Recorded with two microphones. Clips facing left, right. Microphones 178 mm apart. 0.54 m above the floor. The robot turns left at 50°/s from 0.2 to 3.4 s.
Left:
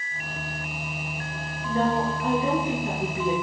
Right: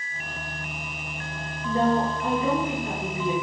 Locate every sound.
1.6 s a woman speaking: 155° right, 8 m; by 3.3 s 120° left, 8 m